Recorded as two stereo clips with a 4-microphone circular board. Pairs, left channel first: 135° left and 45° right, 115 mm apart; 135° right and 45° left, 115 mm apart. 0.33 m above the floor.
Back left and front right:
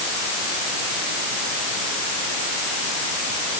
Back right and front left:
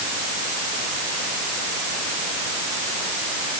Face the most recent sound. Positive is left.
No sound to turn to.